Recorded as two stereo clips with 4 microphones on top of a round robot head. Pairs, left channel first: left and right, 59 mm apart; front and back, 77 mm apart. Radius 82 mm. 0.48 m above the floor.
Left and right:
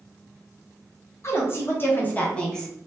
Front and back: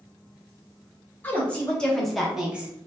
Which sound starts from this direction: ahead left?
A woman speaking, at 1.2 s.